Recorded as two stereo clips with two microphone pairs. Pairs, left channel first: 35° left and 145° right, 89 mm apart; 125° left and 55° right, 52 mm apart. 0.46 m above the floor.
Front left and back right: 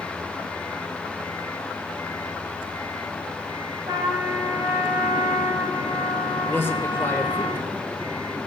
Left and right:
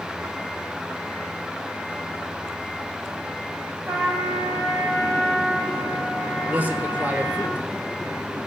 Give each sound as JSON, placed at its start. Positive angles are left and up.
{"t": 3.9, "sound": "a trumpet", "azimuth_deg": -100, "distance_m": 8.0}
{"t": 6.5, "sound": "a man speaking", "azimuth_deg": -15, "distance_m": 1.8}